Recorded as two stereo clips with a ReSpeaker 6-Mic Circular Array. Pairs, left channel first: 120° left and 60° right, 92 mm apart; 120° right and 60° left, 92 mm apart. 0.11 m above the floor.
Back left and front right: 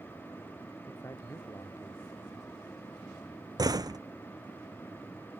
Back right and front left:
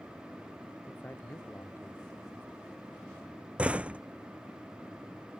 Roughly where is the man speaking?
Behind.